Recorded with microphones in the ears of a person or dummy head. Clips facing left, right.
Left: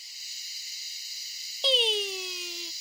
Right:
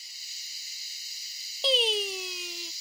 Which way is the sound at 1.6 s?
5° right (ahead or behind).